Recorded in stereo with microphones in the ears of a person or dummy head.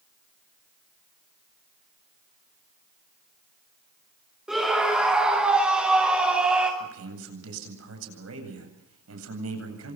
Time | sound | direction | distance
4.5 | a scream | centre (ahead or behind) | 5 m
6.8 | a man speaking | 90° right | 9 m